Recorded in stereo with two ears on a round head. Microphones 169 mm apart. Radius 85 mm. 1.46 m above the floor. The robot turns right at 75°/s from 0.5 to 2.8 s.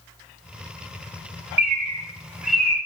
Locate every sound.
1.6 s a bird: 55° right (ahead or behind), 2 m; by 2.8 s 15° left (ahead or behind), 2 m